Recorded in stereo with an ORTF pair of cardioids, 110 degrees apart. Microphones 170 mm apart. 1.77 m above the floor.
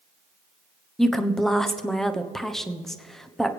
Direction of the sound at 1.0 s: Straight ahead.